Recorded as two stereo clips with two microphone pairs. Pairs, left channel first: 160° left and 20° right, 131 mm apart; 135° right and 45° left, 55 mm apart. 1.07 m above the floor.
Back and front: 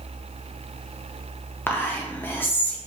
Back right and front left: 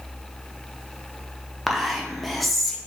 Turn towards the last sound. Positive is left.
turn(degrees=140)